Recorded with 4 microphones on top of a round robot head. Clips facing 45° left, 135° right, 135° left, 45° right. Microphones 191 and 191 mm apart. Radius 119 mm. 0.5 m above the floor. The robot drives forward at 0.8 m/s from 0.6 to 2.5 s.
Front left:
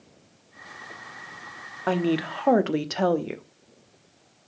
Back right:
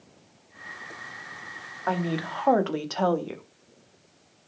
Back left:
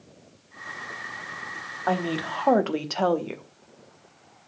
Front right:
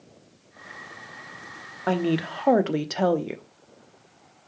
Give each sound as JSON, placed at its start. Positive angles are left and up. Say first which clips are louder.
{"t": 1.9, "sound": "a woman speaking", "louder": "front left 5 dB, front right 3 dB", "azimuth_deg": 5, "distance_m": 1.2}